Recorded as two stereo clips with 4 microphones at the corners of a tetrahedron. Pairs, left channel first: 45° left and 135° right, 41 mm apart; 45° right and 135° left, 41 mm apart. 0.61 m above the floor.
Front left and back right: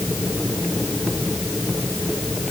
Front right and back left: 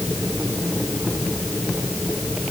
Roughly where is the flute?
No flute in this recording.